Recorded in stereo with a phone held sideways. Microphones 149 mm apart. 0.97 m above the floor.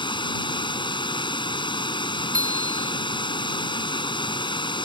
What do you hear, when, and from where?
0.0 s running water: 35° left (ahead or behind)
2.3 s a bicycle bell: 70° right (ahead or behind)